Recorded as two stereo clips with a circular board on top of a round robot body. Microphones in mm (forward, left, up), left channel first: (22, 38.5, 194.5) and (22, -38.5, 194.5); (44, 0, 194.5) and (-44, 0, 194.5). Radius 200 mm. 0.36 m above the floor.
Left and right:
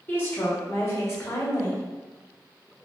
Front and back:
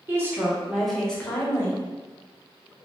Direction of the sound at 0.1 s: 135° left.